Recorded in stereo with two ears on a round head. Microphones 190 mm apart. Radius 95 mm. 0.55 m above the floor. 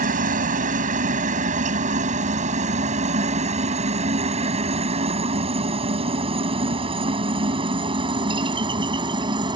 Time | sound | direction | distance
0.0 | a helicopter | 40° right (ahead or behind) | ?